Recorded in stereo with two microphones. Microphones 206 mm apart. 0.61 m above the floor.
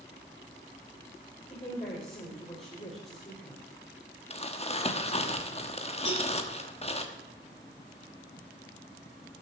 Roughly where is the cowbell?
Right.